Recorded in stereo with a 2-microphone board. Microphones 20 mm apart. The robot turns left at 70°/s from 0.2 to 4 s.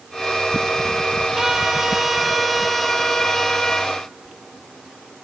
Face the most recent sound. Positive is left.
turn(degrees=80)